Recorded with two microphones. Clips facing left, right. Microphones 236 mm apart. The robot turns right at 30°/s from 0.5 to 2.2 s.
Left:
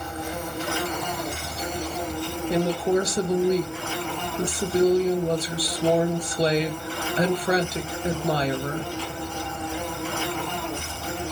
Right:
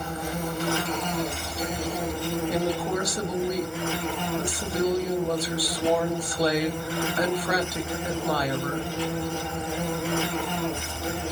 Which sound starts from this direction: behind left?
An insect, at 0.0 s.